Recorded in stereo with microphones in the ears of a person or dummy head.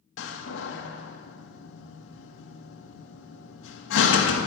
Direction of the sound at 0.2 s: 70° left (ahead or behind).